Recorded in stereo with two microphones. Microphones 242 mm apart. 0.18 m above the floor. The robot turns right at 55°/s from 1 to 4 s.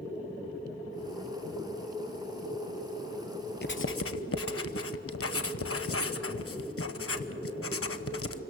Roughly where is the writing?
Left.